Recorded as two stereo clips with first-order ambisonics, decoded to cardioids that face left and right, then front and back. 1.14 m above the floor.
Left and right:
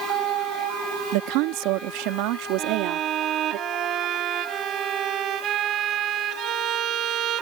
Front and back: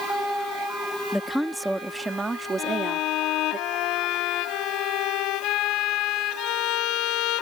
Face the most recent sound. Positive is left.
turn(degrees=-35)